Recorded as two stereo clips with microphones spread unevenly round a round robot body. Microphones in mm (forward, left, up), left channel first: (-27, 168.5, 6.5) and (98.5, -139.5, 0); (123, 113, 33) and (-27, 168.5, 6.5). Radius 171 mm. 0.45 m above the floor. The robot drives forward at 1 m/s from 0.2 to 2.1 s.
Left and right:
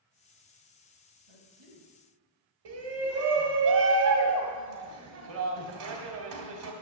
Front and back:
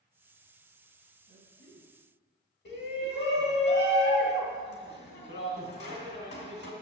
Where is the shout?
45° right, 1.8 m.